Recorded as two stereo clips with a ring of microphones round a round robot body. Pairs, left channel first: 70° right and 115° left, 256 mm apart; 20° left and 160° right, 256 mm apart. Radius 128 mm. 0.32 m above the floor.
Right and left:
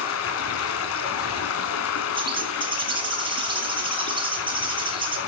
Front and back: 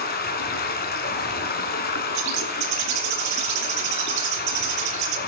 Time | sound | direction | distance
0.0 | running water | 30° right | 2 m
2.1 | a bird | 175° right | 3 m